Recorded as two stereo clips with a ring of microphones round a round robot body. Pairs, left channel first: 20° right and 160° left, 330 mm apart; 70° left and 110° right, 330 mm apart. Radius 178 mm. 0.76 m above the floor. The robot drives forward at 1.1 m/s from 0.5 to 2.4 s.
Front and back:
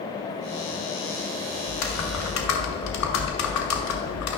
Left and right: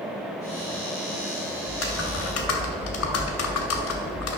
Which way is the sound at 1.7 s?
15° left.